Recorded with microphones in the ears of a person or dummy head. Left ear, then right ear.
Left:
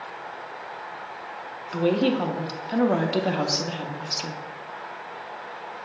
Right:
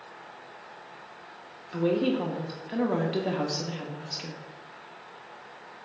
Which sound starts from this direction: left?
A woman speaking, at 1.7 s.